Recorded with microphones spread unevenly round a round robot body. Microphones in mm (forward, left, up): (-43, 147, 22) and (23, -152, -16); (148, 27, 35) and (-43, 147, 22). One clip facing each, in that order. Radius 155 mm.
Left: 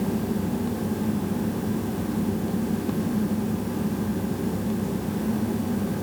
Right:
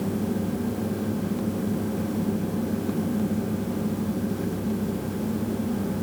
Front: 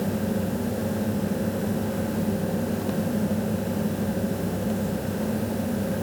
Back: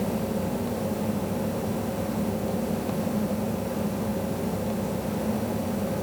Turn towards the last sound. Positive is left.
No sound to turn to.